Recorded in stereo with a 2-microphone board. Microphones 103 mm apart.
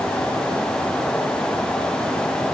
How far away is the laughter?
No laughter in this recording.